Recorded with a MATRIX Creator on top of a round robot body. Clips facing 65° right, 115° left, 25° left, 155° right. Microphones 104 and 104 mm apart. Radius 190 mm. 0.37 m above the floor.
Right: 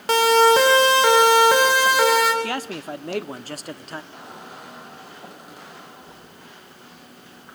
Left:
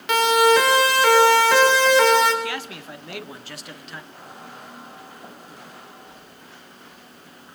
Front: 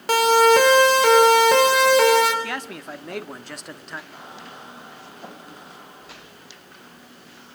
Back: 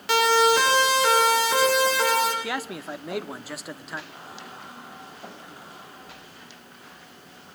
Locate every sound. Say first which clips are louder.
0.1 s a siren: right 1 dB, front 4 dB; 20° right, 5.5 m; by 2.3 s 20° left, 6 m
2.4 s a man speaking: right 3 dB, back 1 dB; 75° right, 1.7 m
4.1 s a squeak: right 1 dB, front 1 dB; 45° right, 7 m